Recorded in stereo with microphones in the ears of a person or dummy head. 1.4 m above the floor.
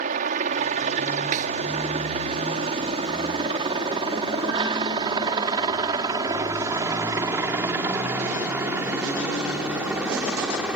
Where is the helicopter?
40° right (ahead or behind); by 10.8 s centre (ahead or behind).